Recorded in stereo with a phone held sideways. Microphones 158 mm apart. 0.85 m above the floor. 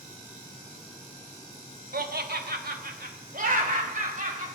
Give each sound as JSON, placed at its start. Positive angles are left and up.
{"t": 1.9, "sound": "laughter", "side_deg": -70, "distance_m": 1.3}